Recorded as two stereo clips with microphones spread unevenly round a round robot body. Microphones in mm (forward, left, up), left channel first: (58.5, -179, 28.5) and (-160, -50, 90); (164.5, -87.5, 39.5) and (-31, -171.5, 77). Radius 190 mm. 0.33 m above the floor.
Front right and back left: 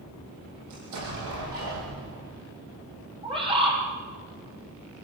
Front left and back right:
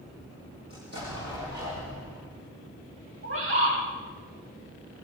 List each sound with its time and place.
0.7 s an explosion: 140° left, 9 m
3.2 s a bird: 140° right, 9.5 m